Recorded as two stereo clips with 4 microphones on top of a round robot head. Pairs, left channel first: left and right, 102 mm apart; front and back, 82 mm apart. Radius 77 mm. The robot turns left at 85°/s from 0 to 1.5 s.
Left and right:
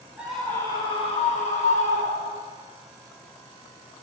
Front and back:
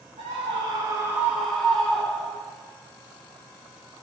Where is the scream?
170° right, 5.5 m; by 2.5 s 80° left, 5.5 m.